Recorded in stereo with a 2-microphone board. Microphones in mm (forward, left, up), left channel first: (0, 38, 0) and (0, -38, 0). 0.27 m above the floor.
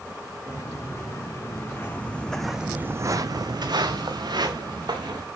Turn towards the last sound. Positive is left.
turn(degrees=-75)  # may be behind; listen again after turning